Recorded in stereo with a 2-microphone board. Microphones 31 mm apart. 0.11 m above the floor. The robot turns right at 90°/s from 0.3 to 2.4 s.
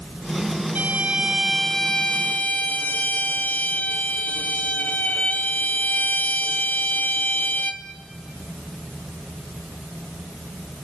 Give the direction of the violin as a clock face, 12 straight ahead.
2 o'clock.